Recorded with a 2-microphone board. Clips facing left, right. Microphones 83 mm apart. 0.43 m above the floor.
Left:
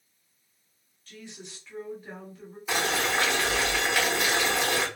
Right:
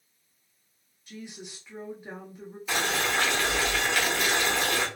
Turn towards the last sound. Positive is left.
turn(degrees=20)  # may be behind; listen again after turning